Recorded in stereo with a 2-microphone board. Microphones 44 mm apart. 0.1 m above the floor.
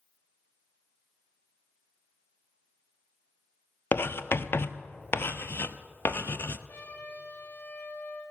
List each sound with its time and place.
3.9 s writing: 60° left (ahead or behind), 0.6 m
6.7 s a trumpet: 45° left (ahead or behind), 4 m